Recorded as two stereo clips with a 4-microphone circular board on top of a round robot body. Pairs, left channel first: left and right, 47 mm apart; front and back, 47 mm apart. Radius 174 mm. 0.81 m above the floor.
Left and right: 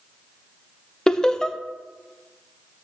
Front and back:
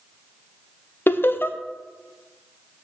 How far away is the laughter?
About 0.8 m.